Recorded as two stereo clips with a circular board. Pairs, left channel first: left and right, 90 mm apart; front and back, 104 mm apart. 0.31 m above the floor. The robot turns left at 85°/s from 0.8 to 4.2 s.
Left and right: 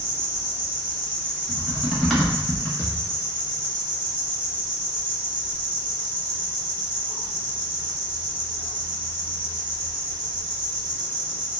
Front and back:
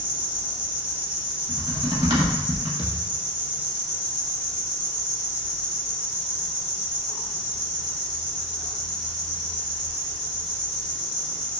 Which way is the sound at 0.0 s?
150° right.